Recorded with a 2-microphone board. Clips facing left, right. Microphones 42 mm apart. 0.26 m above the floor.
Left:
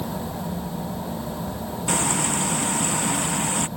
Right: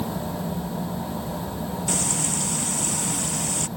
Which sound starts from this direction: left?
Frying, at 1.9 s.